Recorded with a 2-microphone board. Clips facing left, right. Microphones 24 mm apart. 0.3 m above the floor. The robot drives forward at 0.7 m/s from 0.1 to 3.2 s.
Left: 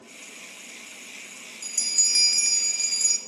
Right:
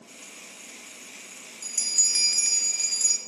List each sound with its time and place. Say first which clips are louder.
1.6 s a bell: left 1 dB; 15° left (ahead or behind), 0.7 m